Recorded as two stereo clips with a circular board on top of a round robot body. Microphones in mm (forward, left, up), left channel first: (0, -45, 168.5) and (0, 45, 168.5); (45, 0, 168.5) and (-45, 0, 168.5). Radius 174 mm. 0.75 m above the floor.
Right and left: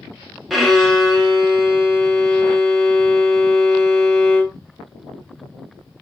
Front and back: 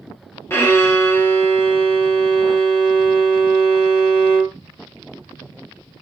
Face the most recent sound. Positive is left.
turn(degrees=0)